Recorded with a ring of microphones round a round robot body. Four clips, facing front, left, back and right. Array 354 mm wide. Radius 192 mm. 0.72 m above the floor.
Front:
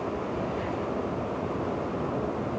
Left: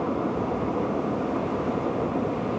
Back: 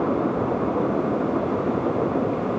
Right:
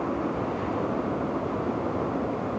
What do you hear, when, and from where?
Only background noise.